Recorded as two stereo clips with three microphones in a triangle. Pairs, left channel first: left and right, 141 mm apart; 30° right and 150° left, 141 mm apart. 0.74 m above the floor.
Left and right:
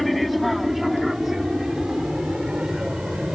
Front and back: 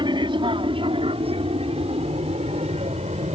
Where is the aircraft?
Straight behind; by 3.4 s 175° right.